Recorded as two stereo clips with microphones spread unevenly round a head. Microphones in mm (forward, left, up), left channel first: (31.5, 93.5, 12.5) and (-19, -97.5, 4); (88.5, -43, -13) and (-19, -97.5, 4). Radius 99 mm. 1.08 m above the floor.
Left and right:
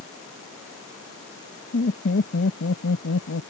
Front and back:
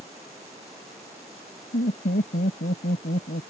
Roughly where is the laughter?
Ahead left.